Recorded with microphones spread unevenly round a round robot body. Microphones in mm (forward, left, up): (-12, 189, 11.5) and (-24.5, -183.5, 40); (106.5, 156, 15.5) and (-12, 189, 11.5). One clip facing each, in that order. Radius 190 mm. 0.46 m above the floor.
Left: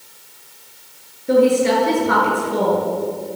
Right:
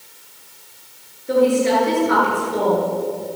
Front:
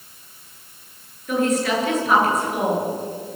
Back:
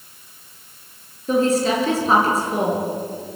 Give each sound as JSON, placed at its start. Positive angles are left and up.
{"t": 1.3, "sound": "a woman speaking", "azimuth_deg": 105, "distance_m": 9.5}